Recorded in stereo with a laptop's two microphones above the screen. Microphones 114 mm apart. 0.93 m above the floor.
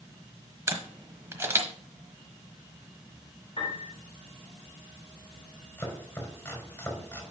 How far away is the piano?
About 3.5 m.